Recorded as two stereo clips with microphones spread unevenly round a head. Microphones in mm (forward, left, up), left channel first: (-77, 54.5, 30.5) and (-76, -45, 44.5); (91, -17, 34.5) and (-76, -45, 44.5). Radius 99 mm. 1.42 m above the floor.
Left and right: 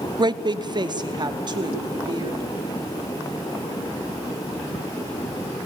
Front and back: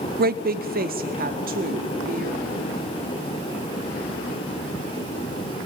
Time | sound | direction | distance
0.2 | a woman speaking | 140° right | 0.7 m